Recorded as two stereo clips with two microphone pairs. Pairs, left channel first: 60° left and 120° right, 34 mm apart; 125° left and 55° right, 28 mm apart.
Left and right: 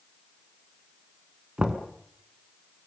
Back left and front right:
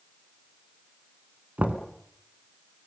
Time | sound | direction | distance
1.6 | knocking | 60° right | 2 m